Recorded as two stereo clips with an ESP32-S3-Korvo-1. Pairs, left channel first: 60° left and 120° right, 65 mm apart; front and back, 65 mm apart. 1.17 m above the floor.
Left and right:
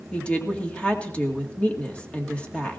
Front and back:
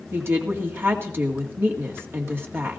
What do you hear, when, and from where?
0.1 s a woman speaking: 130° left, 2.0 m